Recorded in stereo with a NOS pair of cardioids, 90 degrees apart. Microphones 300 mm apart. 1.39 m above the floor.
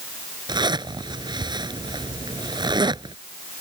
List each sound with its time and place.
0.5 s a zipper: 15° right